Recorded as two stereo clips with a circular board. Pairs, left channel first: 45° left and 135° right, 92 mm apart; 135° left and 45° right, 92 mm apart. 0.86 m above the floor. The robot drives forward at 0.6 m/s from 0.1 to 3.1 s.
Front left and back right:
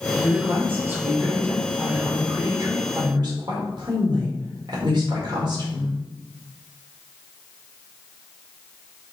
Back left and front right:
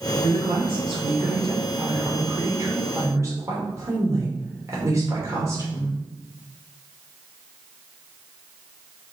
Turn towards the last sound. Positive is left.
turn(degrees=-100)